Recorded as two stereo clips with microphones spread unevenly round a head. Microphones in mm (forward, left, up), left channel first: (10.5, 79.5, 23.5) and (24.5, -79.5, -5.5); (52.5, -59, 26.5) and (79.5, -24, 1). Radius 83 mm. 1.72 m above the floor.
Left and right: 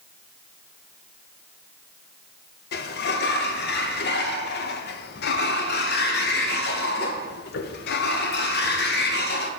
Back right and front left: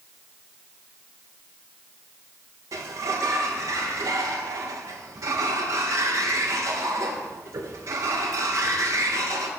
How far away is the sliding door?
About 0.7 m.